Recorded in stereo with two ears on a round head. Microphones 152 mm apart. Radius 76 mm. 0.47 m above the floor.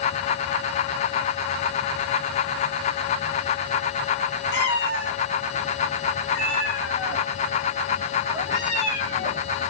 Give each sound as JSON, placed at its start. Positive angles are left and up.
{"t": 4.5, "sound": "a cat meowing", "side_deg": 75, "distance_m": 1.4}